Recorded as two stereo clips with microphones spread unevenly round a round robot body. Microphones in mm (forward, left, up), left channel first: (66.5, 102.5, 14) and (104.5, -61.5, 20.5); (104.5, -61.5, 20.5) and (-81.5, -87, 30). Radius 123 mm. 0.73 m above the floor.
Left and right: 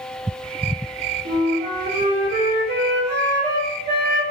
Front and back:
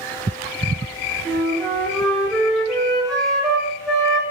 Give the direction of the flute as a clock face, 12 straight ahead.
3 o'clock.